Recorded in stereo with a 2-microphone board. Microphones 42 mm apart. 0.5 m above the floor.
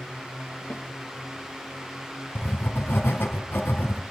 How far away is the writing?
About 3 m.